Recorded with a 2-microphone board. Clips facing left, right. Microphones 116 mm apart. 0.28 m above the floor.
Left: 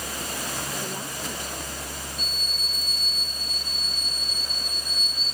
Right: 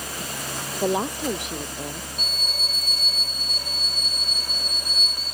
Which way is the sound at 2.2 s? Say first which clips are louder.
Right 3 dB; 65° right (ahead or behind).